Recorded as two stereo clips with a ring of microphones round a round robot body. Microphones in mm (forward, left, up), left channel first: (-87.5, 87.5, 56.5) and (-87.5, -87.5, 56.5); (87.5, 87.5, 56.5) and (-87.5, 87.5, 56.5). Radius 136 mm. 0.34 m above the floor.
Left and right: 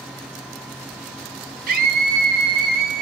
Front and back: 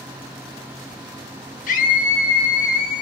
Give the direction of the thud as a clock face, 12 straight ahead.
I don't hear a thud.